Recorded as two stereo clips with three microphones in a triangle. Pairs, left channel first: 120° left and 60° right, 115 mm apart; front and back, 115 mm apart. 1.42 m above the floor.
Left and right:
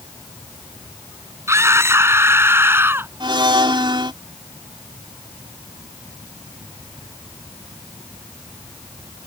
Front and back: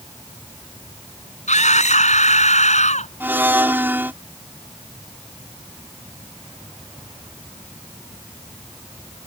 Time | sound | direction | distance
1.5 | a scream | 5° left | ?
3.2 | a blender | 105° right | ?